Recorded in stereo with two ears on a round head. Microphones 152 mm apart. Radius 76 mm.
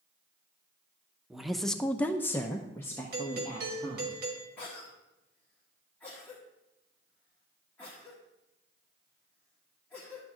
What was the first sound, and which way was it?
A woman speaking, centre (ahead or behind).